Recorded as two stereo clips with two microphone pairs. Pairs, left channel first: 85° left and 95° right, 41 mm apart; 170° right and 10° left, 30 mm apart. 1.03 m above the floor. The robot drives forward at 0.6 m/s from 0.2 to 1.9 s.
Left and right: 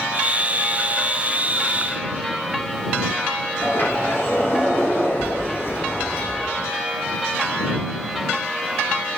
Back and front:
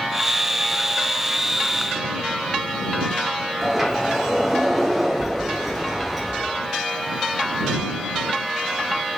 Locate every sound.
3.6 s a sliding door: 105° left, 1.8 m